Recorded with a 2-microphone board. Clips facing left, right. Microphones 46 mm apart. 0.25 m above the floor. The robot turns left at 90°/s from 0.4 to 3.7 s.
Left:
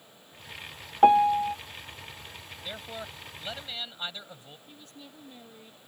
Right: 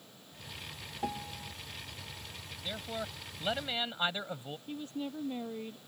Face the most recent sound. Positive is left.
turn(degrees=-30)  # may be behind; listen again after turning